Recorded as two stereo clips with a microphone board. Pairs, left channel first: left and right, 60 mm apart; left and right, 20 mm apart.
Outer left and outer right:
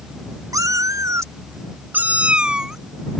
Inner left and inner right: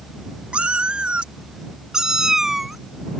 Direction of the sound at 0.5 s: 85° right.